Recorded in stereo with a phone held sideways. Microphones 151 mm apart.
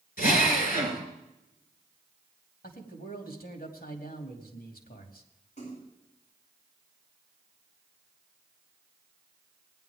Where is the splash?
50° left (ahead or behind), 8 m.